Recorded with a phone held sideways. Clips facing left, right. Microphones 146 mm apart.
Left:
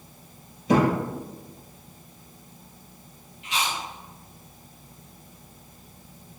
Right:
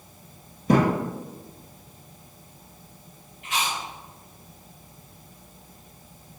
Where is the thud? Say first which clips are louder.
Even; 45° right (ahead or behind), 1.9 m.